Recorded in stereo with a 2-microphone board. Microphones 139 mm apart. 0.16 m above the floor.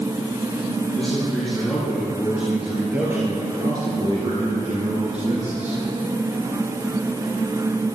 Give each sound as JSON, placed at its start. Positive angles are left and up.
{"t": 0.9, "sound": "a man speaking", "side_deg": 5, "distance_m": 5.5}